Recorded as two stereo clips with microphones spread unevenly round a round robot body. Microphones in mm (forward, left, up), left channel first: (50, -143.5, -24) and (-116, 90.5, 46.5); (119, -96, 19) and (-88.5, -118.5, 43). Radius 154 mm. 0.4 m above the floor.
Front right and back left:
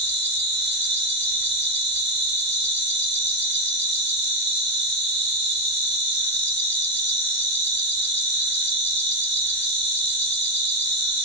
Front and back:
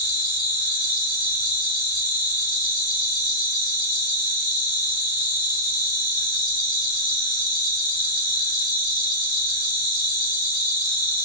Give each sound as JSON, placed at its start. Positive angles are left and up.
{"t": 0.0, "sound": "an insect", "azimuth_deg": 65, "distance_m": 2.5}